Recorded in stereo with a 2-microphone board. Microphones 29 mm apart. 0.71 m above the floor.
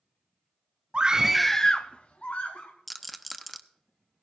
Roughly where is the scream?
Right.